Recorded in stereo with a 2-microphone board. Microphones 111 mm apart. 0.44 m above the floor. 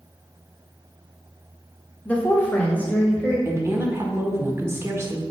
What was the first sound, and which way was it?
A woman speaking, 15° left (ahead or behind).